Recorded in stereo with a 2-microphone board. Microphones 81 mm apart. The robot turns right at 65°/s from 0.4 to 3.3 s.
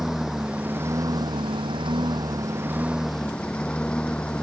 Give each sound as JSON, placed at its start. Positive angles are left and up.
{"t": 0.0, "sound": "a lawn mower", "azimuth_deg": -175}